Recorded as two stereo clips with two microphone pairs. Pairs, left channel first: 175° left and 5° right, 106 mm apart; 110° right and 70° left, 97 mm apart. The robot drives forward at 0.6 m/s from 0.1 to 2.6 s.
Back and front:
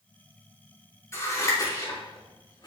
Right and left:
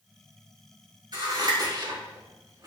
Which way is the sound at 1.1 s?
115° left.